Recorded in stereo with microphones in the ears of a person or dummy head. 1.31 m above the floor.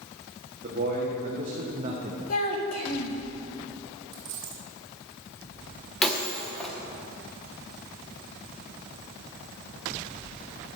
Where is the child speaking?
40° left (ahead or behind), 1.5 m.